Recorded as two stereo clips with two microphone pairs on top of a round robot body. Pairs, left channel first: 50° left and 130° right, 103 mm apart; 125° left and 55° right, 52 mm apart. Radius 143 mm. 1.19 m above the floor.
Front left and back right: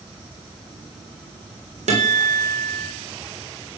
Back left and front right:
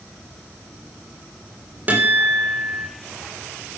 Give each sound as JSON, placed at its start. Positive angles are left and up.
{"t": 1.9, "sound": "a guitar", "azimuth_deg": -115, "distance_m": 4.5}